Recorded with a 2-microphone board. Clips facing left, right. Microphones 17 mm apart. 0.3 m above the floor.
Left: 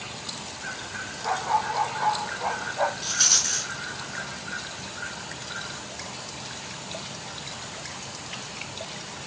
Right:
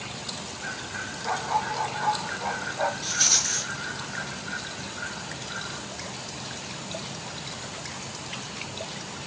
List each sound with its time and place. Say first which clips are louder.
1.2 s a dog barking: left 2 dB; 85° left, 4 m; by 2.9 s 65° left (ahead or behind), 3.5 m
3.0 s a rattle: left 1 dB; 20° left (ahead or behind), 4 m